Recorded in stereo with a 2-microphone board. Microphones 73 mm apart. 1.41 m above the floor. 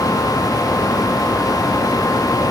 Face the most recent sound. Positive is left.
No sound to turn to.